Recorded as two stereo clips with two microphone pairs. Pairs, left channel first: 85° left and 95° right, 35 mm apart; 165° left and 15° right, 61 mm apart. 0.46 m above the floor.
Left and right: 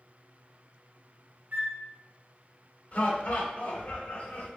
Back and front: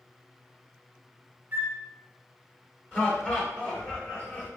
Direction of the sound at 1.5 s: 70° right.